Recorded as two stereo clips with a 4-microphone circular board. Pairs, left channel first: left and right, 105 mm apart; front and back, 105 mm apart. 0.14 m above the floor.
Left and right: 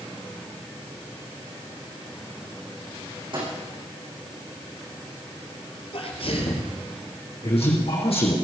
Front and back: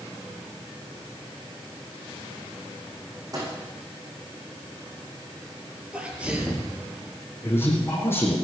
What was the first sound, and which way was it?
A microwave, 125° right.